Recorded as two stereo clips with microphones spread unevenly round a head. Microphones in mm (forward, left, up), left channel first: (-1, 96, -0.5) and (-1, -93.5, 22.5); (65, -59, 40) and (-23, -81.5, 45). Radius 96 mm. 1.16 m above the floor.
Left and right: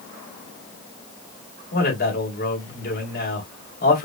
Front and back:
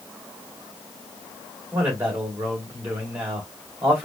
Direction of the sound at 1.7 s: 125° left.